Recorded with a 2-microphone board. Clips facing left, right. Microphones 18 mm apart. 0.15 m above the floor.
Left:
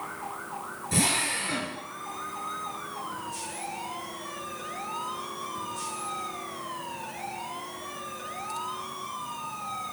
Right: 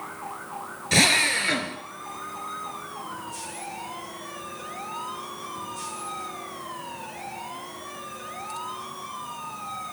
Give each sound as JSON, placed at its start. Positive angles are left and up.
{"t": 0.9, "sound": "a drill", "side_deg": -60, "distance_m": 1.1}